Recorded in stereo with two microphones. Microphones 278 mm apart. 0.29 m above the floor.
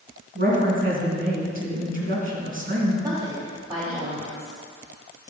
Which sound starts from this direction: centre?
A woman speaking, at 3.0 s.